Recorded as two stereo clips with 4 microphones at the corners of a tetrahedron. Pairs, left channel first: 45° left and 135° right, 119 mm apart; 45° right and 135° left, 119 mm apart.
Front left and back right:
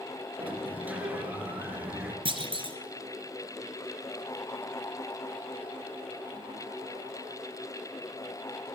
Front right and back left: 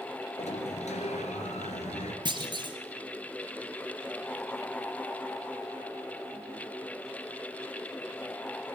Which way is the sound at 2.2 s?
175° right.